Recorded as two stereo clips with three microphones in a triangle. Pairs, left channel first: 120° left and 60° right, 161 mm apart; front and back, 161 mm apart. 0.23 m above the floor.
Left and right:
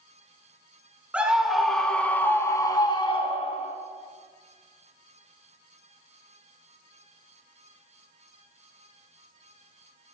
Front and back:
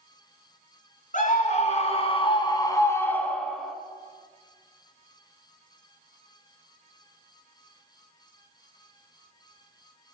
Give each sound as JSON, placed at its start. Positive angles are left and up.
{"t": 1.1, "sound": "a scream", "azimuth_deg": 20, "distance_m": 3.0}